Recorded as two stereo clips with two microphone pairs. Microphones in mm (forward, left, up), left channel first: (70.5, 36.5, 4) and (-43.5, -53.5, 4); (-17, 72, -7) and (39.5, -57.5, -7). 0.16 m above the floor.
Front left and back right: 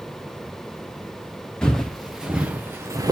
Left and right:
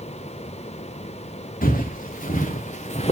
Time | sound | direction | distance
1.6 | footsteps | 120° left | 1.4 m